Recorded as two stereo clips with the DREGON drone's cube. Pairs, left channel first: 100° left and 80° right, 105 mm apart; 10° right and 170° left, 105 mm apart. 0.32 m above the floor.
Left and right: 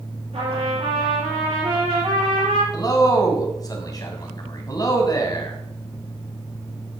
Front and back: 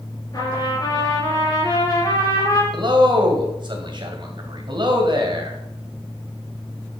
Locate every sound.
0.3 s a trumpet: 60° right, 5 m
2.7 s a man speaking: 140° left, 2 m